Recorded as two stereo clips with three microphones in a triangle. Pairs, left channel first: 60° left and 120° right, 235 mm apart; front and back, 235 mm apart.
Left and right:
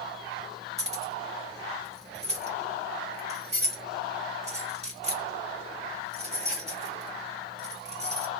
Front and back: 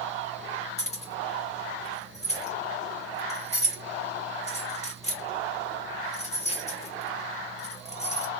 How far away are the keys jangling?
About 0.9 m.